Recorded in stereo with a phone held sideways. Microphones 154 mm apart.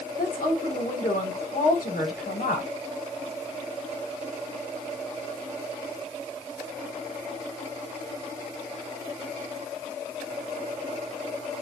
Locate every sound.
0.2 s a woman speaking: 70° left (ahead or behind), 6 m